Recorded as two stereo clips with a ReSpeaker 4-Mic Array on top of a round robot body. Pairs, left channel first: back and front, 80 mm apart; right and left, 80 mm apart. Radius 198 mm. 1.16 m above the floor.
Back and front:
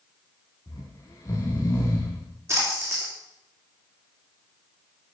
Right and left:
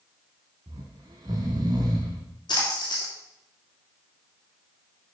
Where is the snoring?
125° left, 1.2 m.